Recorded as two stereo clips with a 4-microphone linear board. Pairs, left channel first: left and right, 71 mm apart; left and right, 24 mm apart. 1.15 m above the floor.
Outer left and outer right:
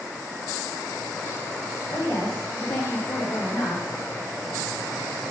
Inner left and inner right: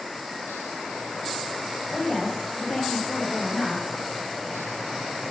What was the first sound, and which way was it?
A woman speaking, 70° left (ahead or behind).